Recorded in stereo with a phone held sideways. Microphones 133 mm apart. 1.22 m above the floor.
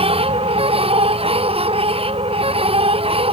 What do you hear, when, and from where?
0.0 s a machine running: 45° right (ahead or behind)